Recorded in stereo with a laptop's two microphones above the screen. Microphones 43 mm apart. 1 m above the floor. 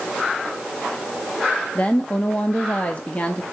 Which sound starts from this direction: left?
A woman speaking, at 1.8 s.